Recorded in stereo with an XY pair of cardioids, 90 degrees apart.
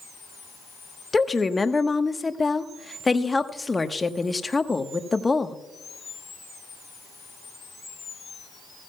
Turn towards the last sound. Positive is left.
turn(degrees=25)